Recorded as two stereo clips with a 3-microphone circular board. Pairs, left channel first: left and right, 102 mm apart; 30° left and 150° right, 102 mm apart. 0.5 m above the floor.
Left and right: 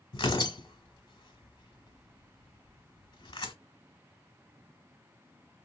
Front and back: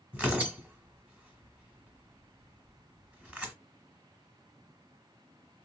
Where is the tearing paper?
130° left, 1.1 m.